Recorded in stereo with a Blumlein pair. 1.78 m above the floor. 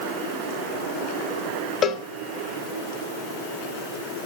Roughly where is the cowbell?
Ahead left.